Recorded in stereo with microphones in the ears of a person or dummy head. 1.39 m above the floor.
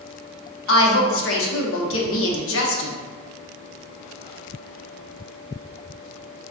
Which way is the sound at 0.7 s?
65° left (ahead or behind).